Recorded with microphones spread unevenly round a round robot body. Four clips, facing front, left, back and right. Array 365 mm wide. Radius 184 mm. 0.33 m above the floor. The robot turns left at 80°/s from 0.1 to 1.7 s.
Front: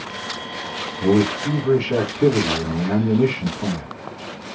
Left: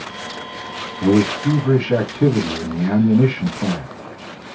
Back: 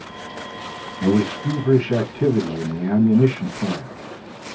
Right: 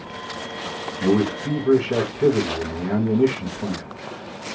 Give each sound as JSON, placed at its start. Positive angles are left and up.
{"t": 1.0, "sound": "a man speaking", "azimuth_deg": 160, "distance_m": 2.5}